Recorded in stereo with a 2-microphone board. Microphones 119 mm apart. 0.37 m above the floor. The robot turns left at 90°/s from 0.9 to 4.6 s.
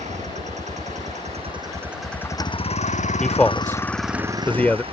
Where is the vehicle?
80° right; by 4.9 s 50° right.